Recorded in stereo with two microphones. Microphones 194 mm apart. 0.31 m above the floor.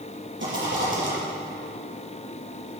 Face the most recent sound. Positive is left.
turn(degrees=-80)